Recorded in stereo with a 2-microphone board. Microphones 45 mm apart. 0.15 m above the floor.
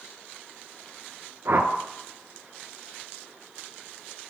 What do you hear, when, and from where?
1.4 s a whoosh: 60° right (ahead or behind), 0.7 m